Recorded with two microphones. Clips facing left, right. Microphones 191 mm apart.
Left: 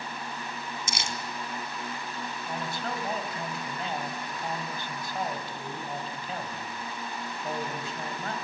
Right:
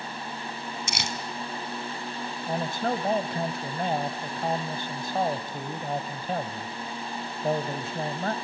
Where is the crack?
I don't hear a crack.